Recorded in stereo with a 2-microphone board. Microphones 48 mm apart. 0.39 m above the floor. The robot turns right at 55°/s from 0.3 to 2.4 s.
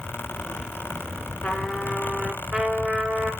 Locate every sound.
1.4 s a trumpet: 150° left, 1.5 m; by 3.3 s 155° right, 1.5 m